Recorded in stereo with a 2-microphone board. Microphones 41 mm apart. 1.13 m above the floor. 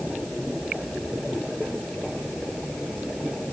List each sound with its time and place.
Only background noise.